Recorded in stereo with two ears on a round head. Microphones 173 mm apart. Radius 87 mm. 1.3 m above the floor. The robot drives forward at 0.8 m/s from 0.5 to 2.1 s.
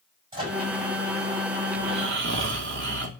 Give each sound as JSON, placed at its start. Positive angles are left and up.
{"t": 0.3, "sound": "a microwave", "side_deg": -30, "distance_m": 7.0}
{"t": 1.8, "sound": "snoring", "side_deg": -70, "distance_m": 2.5}